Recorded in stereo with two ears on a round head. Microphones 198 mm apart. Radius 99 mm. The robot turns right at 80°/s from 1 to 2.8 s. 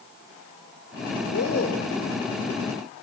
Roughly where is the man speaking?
Left.